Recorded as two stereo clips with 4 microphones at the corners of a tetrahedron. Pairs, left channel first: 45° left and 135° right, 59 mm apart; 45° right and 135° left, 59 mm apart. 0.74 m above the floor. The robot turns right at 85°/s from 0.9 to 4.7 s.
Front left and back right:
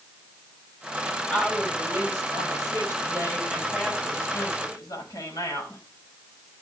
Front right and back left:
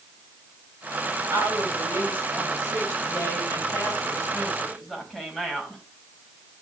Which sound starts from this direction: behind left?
A woman speaking, at 1.3 s.